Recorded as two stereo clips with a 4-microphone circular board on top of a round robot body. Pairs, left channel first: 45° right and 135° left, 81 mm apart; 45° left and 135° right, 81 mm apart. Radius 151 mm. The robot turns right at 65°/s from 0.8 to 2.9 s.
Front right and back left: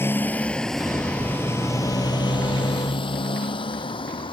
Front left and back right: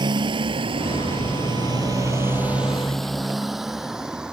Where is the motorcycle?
110° right; by 4.3 s 55° right.